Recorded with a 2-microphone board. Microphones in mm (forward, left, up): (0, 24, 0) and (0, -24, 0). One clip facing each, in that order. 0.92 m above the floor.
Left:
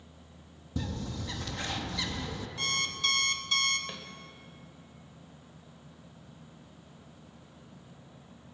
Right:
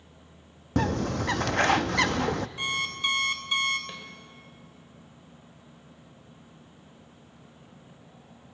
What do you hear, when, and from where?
0.8 s a bird: 70° right (ahead or behind), 0.6 m
2.6 s an alarm clock: 15° right (ahead or behind), 2 m
3.9 s a snare drum: 10° left (ahead or behind), 3 m